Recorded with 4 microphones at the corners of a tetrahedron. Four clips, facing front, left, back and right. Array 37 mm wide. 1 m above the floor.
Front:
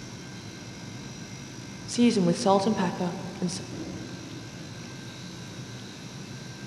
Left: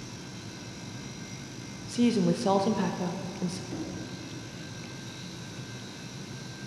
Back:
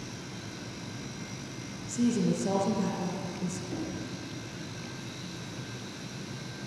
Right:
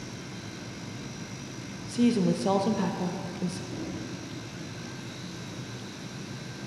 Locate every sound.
1.9 s a woman speaking: 5° left, 0.6 m
3.7 s knocking: 150° left, 2.5 m